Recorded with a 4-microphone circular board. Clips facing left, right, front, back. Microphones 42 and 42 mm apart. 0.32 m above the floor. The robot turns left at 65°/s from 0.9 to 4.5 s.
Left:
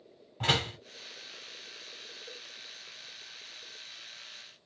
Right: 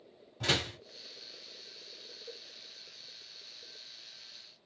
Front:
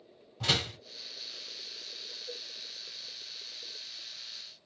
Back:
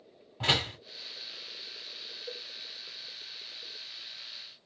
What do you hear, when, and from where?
0.4 s a door slam: 125° left, 1.2 m
2.3 s a cowbell: straight behind, 0.5 m; by 2.4 s 170° left, 0.5 m